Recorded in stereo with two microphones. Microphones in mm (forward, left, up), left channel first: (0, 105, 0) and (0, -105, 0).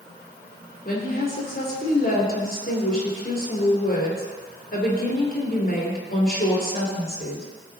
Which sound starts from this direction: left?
A woman speaking, at 0.8 s.